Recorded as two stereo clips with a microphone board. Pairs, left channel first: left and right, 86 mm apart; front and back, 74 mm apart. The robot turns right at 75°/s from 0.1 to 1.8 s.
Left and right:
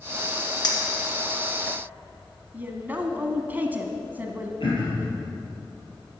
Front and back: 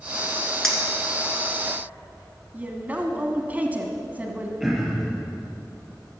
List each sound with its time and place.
0.6 s a clink: 80° left, 1.8 m; by 1.8 s 165° left, 1.8 m
2.5 s a woman speaking: 135° right, 1.2 m
4.6 s throat clearing: 95° left, 3 m